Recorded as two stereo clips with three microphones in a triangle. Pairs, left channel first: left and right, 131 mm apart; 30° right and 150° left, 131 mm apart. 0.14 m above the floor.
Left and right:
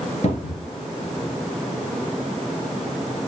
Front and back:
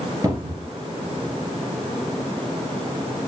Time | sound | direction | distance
0.2 | a cupboard door | 95° left | 2.5 m